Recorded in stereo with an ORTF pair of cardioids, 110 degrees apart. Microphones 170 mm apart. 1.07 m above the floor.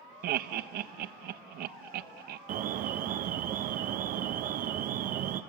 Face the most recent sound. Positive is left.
turn(degrees=-55)